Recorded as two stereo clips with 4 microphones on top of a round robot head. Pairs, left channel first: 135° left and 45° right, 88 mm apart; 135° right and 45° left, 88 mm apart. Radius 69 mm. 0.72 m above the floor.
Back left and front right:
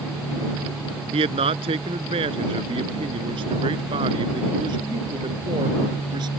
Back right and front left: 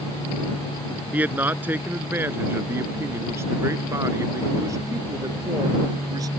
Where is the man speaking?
30° right; by 6.3 s 5° right.